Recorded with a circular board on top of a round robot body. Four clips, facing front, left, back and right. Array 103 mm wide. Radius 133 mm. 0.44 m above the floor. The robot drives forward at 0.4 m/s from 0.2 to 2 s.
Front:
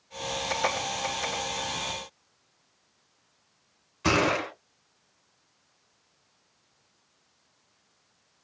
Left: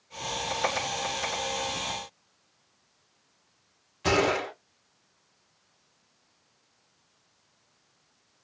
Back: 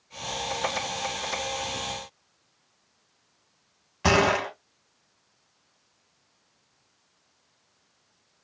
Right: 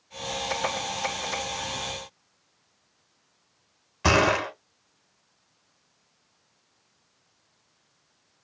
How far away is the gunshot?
About 1.7 m.